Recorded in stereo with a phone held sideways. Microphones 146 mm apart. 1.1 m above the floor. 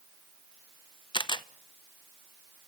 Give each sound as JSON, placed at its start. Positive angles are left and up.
{"t": 1.1, "sound": "a camera shutter", "side_deg": 35, "distance_m": 0.7}